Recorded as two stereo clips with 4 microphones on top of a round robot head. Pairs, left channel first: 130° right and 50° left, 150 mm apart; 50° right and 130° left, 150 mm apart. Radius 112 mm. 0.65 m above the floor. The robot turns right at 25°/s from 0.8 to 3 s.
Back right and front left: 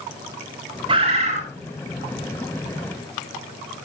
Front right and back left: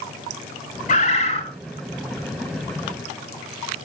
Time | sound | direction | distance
0.9 | a bird | 10° right | 4 m